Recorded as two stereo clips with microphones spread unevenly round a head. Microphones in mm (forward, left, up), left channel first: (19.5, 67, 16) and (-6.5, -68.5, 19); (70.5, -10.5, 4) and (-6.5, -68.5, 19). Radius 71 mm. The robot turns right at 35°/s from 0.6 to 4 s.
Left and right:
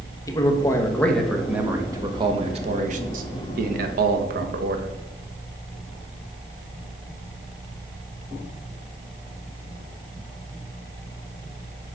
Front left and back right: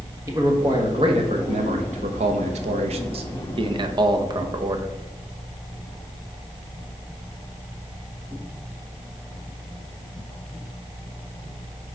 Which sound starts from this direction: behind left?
A man speaking, at 0.3 s.